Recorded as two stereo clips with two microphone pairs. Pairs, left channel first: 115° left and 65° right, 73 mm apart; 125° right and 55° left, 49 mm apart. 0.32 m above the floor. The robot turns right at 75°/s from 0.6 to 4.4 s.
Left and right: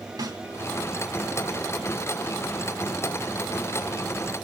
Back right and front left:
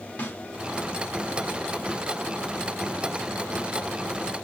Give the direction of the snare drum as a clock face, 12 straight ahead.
2 o'clock.